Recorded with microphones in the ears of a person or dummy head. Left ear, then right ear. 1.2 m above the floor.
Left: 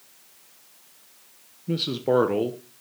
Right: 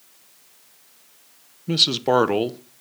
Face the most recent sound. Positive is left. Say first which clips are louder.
# right 5 dB
turn(degrees=-25)  # may be behind; listen again after turning